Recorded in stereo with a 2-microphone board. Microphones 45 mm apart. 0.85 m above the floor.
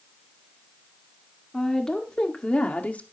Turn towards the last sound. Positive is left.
turn(degrees=35)  # may be behind; listen again after turning